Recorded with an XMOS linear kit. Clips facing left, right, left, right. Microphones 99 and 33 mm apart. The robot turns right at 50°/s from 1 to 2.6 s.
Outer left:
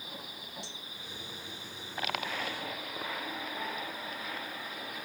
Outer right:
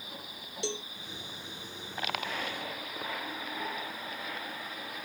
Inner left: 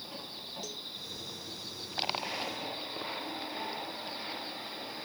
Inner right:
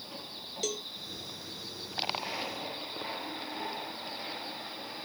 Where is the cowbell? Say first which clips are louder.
Outer right 13 dB, inner right 7 dB; 75° right (ahead or behind).